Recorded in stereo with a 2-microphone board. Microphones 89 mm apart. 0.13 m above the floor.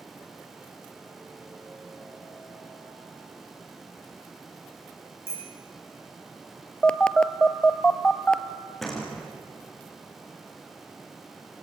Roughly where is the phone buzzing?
Centre.